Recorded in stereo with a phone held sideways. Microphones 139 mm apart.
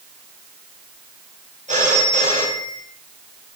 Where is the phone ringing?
70° right (ahead or behind), 4.5 m.